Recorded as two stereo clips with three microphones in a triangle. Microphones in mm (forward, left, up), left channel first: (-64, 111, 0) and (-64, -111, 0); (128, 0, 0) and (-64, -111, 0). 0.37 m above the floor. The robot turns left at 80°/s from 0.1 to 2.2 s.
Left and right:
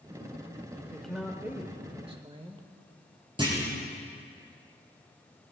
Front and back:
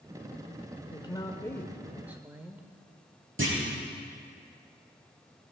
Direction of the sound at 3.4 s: 155° right.